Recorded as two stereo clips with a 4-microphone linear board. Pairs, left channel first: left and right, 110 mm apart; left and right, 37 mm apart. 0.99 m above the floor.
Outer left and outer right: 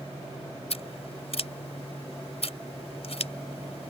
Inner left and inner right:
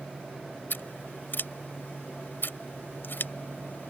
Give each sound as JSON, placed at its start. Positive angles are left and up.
{"t": 0.7, "sound": "scissors", "side_deg": 70}